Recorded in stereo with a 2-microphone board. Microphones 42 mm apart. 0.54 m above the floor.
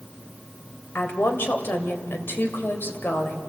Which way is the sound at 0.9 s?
70° left (ahead or behind).